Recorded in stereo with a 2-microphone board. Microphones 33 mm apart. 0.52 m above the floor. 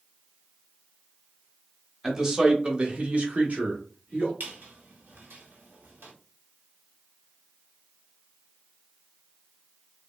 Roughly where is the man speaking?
Centre.